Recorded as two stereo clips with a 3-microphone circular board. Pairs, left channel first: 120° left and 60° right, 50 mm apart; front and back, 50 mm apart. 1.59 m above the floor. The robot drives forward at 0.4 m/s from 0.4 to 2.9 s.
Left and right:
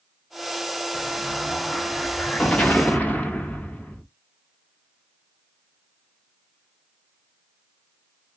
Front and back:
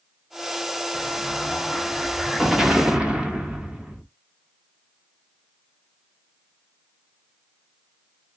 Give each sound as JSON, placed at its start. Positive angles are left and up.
{"t": 0.9, "sound": "an explosion", "azimuth_deg": 40, "distance_m": 1.1}